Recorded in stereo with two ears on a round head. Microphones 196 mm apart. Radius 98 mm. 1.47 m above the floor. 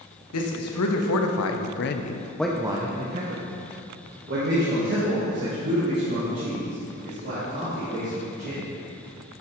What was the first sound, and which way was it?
A man speaking, 80° left.